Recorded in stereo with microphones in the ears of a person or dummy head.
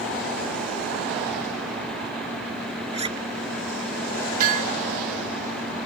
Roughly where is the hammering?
Right.